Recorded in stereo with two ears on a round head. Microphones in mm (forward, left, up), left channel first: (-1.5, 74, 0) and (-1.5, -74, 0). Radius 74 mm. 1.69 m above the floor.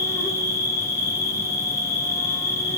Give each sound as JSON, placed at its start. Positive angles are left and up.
{"t": 0.0, "sound": "an insect", "side_deg": 20, "distance_m": 0.9}